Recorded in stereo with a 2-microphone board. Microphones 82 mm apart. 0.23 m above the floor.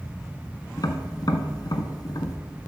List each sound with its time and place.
0.8 s tapping: 55° left (ahead or behind), 1.0 m